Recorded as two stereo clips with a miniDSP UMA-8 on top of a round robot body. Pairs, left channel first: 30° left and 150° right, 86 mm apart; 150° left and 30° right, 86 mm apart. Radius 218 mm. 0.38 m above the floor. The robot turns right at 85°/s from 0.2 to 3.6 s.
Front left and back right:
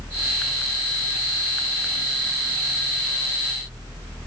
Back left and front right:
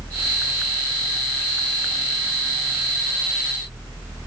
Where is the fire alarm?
I don't hear a fire alarm.